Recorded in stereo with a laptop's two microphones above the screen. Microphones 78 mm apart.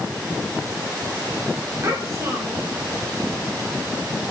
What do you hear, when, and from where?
1.8 s a child speaking: 40° right (ahead or behind), 3.5 m